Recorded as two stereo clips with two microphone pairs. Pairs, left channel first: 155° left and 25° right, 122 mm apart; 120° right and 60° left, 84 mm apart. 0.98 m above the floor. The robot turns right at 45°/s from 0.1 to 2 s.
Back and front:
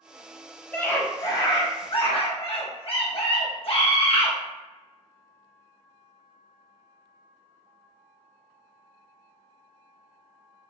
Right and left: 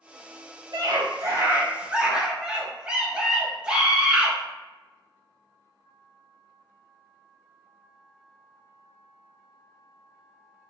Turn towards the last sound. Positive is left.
turn(degrees=135)